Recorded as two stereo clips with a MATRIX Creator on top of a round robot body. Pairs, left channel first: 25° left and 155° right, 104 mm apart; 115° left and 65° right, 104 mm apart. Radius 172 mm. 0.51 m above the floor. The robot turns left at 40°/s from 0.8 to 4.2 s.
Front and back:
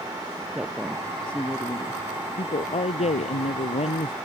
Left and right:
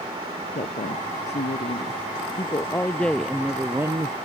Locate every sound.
0.6 s a woman speaking: 125° left; by 4.2 s 10° right